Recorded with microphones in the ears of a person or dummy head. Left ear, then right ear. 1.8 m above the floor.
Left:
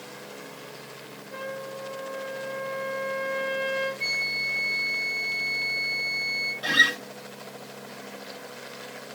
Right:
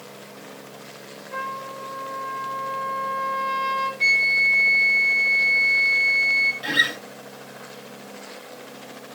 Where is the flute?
25° right (ahead or behind), 1.7 m.